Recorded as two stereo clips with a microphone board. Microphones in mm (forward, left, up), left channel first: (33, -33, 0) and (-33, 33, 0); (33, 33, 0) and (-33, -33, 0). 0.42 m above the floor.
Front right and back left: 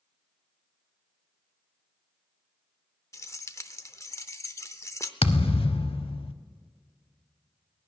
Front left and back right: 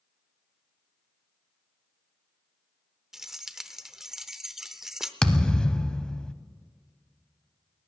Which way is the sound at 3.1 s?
55° right.